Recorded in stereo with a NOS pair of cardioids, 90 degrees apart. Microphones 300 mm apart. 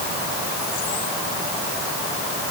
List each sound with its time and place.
Only background noise.